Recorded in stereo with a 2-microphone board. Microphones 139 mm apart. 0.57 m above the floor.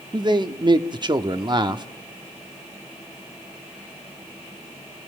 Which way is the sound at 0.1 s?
35° right (ahead or behind).